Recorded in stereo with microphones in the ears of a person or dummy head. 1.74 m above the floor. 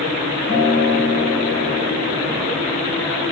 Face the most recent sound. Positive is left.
turn(degrees=80)